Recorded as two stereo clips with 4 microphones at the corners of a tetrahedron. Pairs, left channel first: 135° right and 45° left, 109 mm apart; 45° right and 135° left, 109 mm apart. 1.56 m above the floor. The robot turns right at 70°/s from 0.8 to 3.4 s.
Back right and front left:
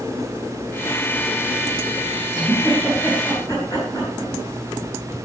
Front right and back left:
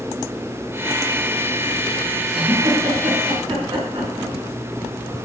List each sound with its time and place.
2.3 s a giggle: 90° left, 8.5 m; by 4.3 s 165° left, 8.5 m